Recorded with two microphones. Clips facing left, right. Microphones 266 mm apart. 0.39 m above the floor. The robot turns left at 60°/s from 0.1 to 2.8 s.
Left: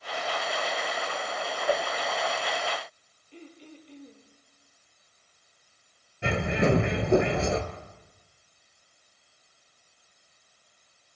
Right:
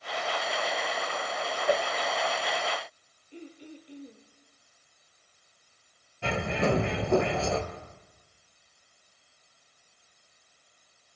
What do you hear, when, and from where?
1.7 s a whoosh: 15° right (ahead or behind), 1.8 m; by 1.9 s 5° right (ahead or behind), 1.8 m
3.3 s throat clearing: 15° right (ahead or behind), 2.5 m
6.2 s a bird: 20° left (ahead or behind), 1.7 m